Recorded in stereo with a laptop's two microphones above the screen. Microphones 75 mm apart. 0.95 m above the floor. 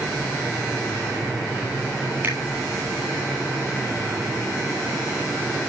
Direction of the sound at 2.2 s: 25° right (ahead or behind).